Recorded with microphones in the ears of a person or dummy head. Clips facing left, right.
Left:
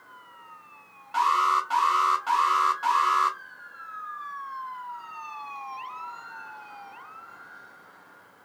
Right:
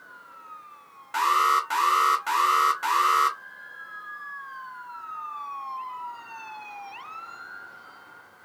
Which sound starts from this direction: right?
An alarm, at 1.1 s.